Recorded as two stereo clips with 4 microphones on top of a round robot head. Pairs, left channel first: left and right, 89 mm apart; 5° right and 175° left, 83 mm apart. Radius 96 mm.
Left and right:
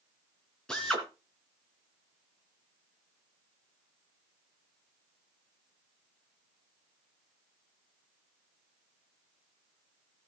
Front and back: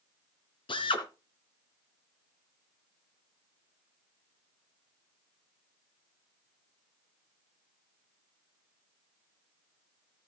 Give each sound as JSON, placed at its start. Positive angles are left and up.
{"t": 0.7, "sound": "a drill", "azimuth_deg": 5, "distance_m": 3.5}